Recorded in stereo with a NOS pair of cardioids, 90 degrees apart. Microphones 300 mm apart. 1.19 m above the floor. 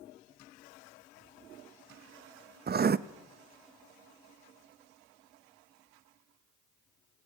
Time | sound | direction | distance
2.7 | writing | 30° right | 0.9 m